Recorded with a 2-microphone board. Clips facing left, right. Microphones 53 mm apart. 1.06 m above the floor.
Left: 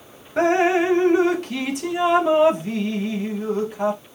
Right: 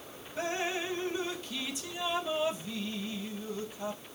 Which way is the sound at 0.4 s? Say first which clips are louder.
Left 16 dB; 65° left (ahead or behind).